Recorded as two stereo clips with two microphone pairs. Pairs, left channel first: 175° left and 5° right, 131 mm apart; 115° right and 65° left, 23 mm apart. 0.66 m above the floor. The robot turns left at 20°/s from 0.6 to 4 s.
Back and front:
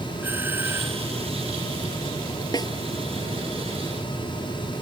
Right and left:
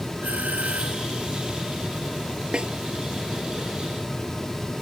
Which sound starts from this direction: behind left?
A snare drum, at 2.5 s.